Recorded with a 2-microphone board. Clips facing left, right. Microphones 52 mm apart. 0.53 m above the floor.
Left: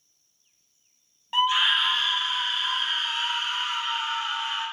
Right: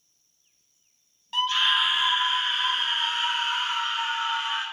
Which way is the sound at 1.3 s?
25° left (ahead or behind).